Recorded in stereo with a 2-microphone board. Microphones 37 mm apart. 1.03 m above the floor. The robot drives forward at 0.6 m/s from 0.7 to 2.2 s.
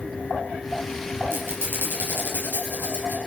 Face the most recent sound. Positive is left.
turn(degrees=-80)